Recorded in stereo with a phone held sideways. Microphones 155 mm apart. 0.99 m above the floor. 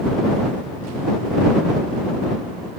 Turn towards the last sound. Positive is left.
No sound to turn to.